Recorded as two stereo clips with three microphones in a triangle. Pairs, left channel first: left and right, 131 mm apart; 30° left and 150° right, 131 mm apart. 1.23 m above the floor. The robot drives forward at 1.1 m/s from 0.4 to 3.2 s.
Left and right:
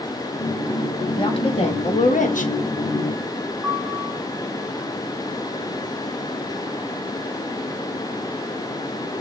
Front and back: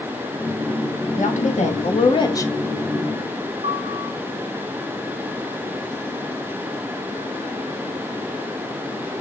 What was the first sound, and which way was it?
A woman speaking, 40° left.